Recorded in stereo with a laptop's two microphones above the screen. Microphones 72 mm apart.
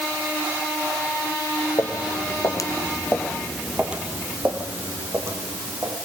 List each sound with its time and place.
1.8 s footsteps: 65° left (ahead or behind), 2.5 m; by 6.0 s 40° right (ahead or behind), 4 m